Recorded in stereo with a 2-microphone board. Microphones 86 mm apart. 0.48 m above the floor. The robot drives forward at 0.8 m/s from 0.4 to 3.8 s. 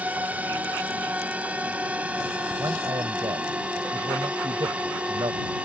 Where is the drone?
15° right (ahead or behind).